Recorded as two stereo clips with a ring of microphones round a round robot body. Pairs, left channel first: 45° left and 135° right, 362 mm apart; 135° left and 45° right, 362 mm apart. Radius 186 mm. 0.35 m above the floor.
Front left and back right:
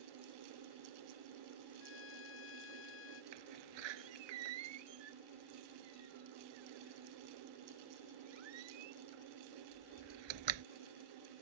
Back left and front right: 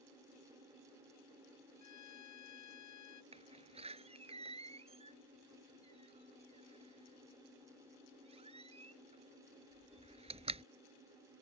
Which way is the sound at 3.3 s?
120° right.